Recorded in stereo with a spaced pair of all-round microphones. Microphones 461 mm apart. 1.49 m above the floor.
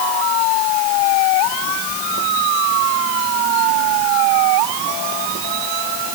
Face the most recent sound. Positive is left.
No sound to turn to.